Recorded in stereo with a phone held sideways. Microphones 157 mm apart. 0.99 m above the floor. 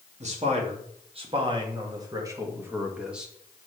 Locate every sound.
0.2 s a man speaking: 45° right (ahead or behind), 2.5 m; by 3.3 s centre (ahead or behind), 1.7 m